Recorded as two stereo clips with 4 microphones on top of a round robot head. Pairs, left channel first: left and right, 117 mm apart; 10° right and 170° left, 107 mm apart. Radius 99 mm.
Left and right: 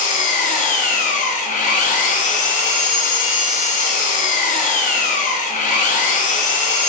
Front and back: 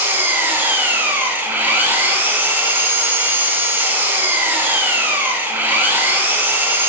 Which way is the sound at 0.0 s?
100° left.